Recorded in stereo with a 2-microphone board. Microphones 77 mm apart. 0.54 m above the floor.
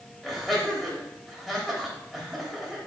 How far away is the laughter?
About 3 m.